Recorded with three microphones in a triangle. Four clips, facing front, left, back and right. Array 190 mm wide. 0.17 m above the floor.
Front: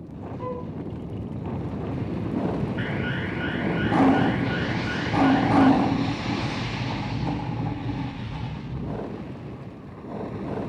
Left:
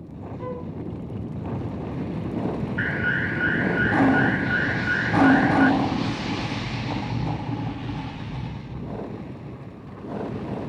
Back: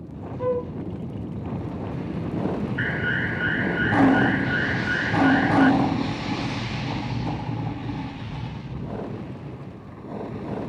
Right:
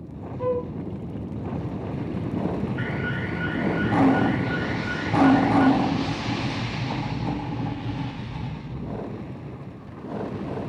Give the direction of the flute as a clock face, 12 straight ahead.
5 o'clock.